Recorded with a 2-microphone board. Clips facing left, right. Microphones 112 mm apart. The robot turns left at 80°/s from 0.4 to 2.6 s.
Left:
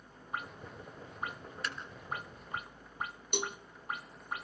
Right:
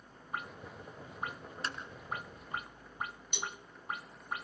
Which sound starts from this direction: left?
A cowbell, at 3.3 s.